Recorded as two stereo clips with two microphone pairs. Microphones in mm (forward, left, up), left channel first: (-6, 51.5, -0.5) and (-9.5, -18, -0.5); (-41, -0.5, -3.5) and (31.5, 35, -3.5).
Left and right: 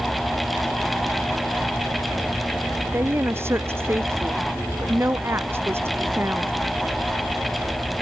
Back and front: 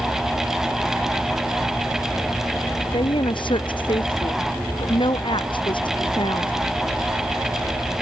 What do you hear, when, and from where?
2.9 s a woman speaking: 145° right